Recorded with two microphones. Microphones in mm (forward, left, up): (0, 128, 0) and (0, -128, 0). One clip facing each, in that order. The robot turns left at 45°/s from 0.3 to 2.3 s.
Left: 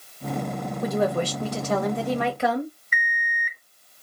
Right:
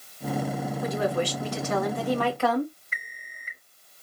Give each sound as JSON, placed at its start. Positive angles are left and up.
{"t": 0.8, "sound": "a woman speaking", "azimuth_deg": 95, "distance_m": 1.9}
{"t": 2.9, "sound": "an alarm clock", "side_deg": -25, "distance_m": 0.6}